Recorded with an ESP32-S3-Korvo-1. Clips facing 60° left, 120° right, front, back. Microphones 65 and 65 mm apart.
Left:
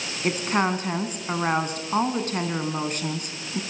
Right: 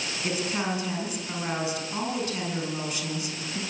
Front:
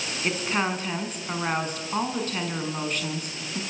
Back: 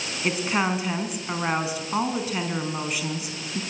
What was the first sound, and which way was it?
A woman speaking, 100° left.